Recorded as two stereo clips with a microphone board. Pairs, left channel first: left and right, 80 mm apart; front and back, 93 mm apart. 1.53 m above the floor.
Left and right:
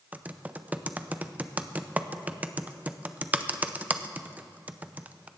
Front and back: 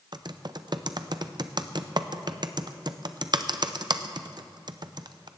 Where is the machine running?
I don't hear a machine running.